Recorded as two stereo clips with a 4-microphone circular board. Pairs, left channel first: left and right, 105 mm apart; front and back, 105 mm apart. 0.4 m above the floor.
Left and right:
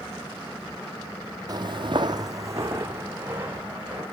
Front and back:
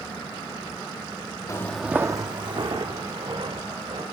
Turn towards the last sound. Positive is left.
turn(degrees=-160)